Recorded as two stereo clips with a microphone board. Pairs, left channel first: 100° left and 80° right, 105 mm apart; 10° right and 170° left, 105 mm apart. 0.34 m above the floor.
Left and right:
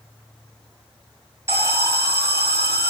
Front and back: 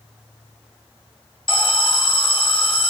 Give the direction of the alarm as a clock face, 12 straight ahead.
1 o'clock.